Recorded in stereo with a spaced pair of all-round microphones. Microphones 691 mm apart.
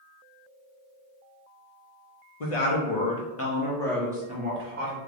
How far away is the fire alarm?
I don't hear a fire alarm.